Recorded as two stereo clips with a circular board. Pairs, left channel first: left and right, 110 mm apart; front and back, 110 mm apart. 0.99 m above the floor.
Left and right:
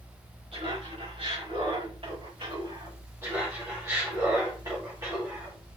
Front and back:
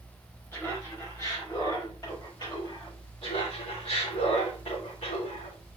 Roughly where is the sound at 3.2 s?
Ahead right.